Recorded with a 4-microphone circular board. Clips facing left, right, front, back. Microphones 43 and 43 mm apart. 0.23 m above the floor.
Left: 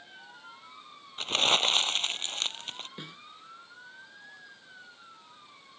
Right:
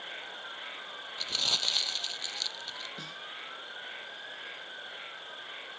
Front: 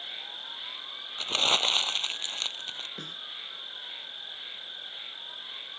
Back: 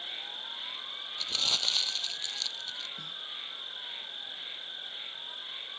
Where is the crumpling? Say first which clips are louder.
Left 7 dB, front 6 dB; 45° left.